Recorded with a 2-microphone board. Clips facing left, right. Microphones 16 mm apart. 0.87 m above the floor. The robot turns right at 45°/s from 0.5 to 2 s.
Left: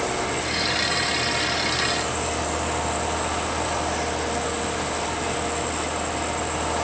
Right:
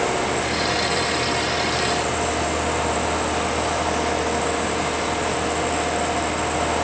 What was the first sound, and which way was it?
Only background noise.